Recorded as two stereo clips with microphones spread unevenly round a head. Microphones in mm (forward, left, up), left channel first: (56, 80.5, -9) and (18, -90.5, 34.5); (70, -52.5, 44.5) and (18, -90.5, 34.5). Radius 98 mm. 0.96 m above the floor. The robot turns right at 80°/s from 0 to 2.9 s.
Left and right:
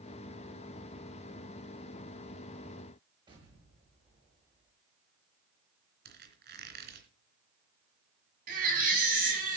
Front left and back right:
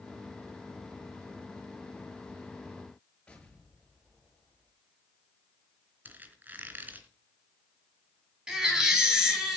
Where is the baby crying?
65° right, 7.5 m.